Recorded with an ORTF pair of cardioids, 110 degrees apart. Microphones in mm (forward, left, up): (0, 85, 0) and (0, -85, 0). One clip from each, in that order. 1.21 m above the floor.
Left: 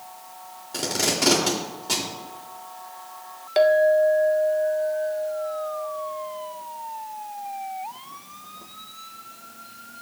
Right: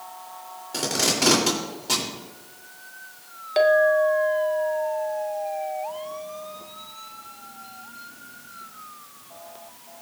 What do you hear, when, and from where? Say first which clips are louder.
0.7 s tape being pulled: right 1 dB; 10° right, 2.5 m
3.6 s a clink: left 1 dB; 5° left, 0.6 m